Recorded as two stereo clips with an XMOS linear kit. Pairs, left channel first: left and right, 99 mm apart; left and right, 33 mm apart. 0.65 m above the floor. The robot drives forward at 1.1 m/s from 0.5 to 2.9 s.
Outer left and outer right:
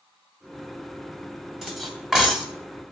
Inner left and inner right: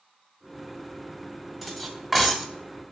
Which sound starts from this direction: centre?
Cutlery clinking, at 1.6 s.